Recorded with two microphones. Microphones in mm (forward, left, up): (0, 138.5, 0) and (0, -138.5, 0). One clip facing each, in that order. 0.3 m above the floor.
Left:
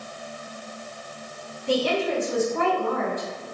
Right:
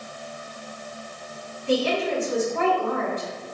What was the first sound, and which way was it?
A woman speaking, 45° left (ahead or behind).